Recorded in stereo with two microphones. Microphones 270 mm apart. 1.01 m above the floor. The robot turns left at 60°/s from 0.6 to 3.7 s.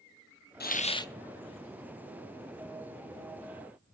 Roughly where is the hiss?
Left.